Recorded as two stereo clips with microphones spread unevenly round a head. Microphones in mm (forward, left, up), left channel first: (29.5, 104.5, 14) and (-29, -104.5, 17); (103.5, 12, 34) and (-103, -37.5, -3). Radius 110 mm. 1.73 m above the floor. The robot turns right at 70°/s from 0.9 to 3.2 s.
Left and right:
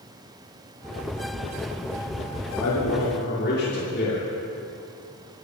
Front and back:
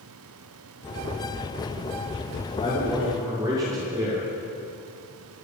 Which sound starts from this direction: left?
A man speaking, at 2.6 s.